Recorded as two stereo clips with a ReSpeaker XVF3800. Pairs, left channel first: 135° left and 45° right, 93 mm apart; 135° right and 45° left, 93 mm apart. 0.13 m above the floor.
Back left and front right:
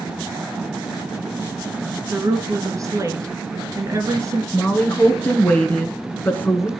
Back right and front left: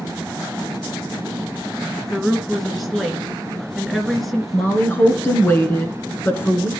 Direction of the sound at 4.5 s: 175° right.